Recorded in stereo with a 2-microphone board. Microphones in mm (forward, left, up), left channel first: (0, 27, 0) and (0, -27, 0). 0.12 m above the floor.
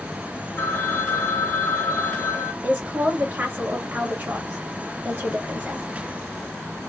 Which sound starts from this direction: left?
A phone ringing, at 0.6 s.